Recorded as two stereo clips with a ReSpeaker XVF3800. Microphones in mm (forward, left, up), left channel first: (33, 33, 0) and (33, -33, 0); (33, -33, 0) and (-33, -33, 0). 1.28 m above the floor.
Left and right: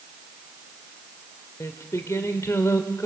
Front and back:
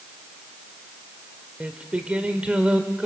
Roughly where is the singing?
Left.